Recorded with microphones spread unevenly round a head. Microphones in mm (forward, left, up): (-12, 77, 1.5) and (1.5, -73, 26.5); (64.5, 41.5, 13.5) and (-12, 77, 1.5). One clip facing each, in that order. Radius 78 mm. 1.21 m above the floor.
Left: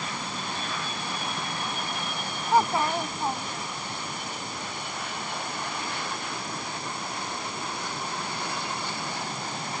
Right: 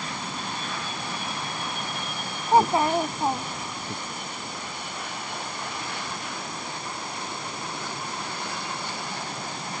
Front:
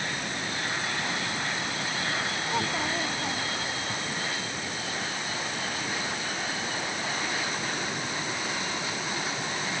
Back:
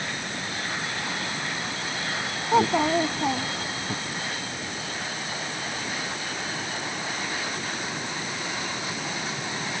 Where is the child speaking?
155° right.